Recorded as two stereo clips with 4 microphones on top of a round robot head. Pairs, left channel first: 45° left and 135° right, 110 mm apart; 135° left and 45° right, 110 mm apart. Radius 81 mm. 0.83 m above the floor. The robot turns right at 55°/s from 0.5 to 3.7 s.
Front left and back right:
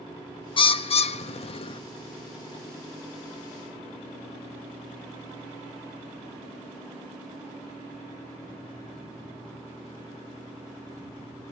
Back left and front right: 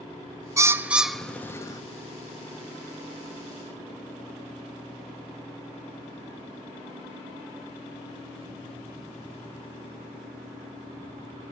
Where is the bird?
10° left, 0.9 m; by 1.8 s 80° left, 0.9 m.